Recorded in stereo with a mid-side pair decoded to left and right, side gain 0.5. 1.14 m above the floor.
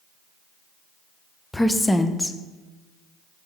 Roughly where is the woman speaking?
Ahead.